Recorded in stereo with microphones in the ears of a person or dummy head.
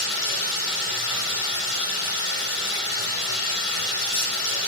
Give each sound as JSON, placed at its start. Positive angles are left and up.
{"t": 0.0, "sound": "running water", "side_deg": 65, "distance_m": 5.5}